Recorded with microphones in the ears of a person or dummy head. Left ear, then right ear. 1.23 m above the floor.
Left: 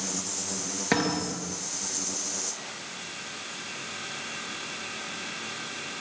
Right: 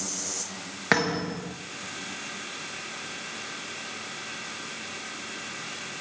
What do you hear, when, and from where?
0.9 s a thud: 50° right (ahead or behind), 3 m